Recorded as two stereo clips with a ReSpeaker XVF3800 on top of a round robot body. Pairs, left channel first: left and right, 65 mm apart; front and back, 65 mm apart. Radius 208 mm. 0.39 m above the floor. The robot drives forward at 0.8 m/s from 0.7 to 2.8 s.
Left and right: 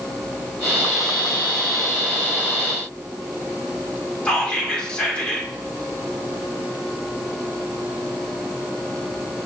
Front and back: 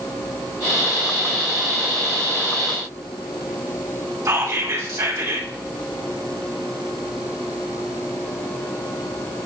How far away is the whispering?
About 2.5 m.